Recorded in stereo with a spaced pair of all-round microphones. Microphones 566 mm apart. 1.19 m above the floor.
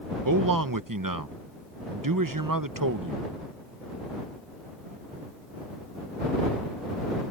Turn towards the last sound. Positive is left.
turn(degrees=-35)  # may be behind; listen again after turning